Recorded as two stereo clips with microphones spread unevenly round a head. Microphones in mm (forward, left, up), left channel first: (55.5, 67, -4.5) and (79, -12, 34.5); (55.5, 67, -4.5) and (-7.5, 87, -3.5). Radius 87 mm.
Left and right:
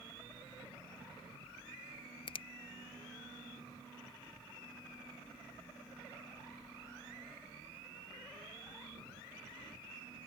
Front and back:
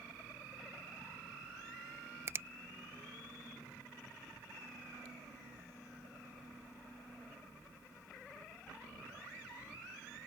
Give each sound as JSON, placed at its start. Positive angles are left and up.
{"t": 2.3, "sound": "a finger snap", "azimuth_deg": 110}